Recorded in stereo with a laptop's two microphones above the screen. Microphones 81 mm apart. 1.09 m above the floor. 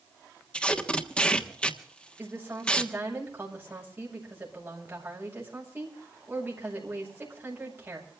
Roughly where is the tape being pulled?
Centre.